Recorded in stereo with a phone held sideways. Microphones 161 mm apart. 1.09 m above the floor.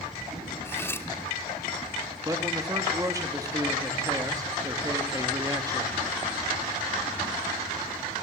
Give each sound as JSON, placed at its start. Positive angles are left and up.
{"t": 0.7, "sound": "cutlery clinking", "side_deg": 15, "distance_m": 1.3}
{"t": 2.2, "sound": "a man speaking", "side_deg": -20, "distance_m": 2.5}